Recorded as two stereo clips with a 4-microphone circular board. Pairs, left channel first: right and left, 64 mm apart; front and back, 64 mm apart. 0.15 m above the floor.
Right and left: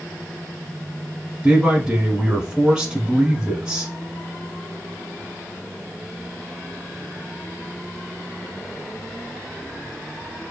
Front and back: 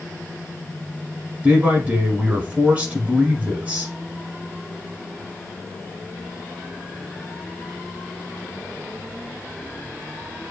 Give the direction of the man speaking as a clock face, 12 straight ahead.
7 o'clock.